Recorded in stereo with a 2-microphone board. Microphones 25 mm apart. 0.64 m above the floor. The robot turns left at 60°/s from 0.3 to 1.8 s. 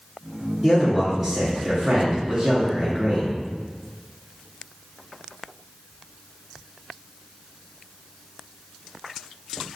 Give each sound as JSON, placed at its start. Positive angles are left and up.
{"t": 0.6, "sound": "a man speaking", "side_deg": 0, "distance_m": 0.9}